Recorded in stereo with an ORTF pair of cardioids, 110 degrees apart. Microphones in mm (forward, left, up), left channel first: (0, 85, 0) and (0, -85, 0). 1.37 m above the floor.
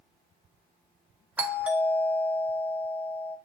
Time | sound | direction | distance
1.4 | a doorbell | 10° right | 1.6 m